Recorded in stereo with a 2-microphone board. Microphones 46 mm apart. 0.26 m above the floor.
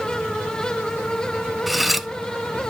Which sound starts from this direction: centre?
Cutlery clinking, at 1.7 s.